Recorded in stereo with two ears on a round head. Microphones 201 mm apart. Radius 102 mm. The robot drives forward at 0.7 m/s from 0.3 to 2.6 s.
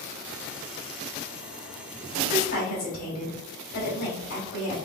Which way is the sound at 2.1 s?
50° left (ahead or behind).